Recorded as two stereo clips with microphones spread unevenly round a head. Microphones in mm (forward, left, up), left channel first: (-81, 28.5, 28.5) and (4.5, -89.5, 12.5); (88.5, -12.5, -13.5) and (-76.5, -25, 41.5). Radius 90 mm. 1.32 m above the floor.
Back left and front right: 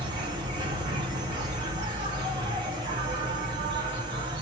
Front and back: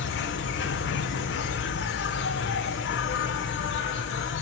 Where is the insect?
10° left, 0.8 m.